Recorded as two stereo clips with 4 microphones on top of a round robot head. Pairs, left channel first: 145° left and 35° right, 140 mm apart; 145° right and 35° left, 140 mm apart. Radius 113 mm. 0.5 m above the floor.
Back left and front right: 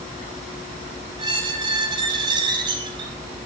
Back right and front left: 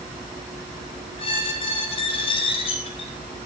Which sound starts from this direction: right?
A squeak, at 1.2 s.